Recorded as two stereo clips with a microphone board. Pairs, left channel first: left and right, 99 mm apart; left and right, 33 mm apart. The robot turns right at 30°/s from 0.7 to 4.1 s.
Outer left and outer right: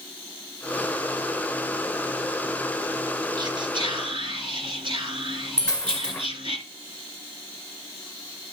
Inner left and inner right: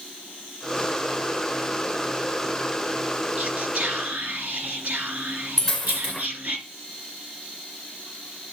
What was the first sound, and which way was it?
Whispering, 45° right (ahead or behind).